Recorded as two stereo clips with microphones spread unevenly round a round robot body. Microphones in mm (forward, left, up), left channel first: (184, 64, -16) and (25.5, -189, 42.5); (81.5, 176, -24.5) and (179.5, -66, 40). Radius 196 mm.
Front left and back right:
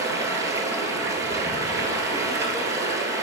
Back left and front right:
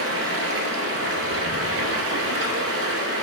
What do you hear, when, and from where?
0.0 s running water: 45° right, 1.2 m